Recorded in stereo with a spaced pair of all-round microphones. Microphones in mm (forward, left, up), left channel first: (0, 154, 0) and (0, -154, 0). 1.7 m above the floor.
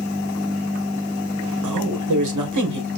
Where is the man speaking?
70° right (ahead or behind), 2 m.